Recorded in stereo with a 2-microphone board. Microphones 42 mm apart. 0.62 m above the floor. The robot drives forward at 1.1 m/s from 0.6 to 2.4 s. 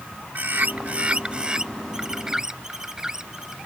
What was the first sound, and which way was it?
A bird, 45° right (ahead or behind).